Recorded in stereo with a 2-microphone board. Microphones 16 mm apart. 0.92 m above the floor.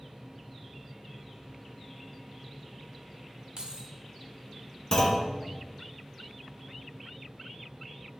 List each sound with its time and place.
3.6 s keys jangling: 55° right (ahead or behind), 1.3 m
4.9 s a clunk: 30° left (ahead or behind), 1.7 m